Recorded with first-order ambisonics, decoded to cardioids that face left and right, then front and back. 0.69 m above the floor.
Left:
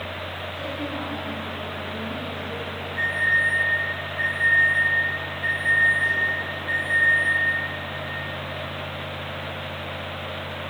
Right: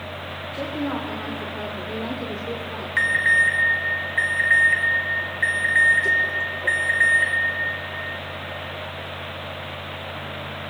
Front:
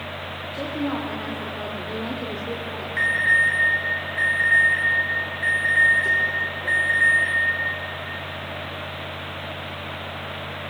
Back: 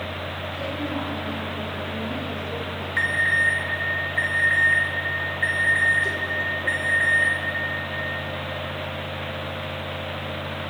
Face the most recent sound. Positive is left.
turn(degrees=-105)